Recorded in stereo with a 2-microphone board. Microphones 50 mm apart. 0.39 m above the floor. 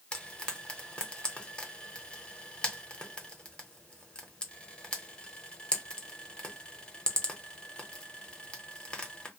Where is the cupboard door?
No cupboard door in this recording.